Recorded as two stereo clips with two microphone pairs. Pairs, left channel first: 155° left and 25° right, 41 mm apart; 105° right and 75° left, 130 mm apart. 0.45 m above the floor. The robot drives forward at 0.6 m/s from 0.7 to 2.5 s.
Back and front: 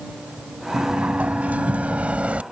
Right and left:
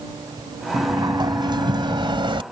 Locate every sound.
0.7 s a sliding door: 20° left; by 2.4 s 30° left